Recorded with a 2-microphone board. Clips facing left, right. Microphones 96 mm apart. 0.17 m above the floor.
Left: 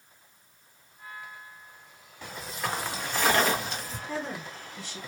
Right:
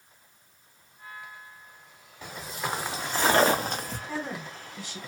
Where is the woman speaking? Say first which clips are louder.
Left 2 dB; 10° right (ahead or behind), 1.7 m.